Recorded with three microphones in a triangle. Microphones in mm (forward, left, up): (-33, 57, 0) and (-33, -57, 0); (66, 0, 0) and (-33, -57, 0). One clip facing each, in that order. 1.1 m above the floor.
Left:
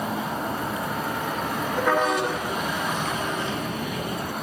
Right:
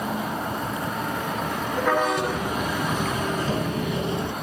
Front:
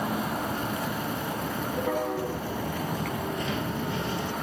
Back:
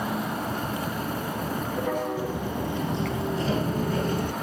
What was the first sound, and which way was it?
Footsteps, 80° right.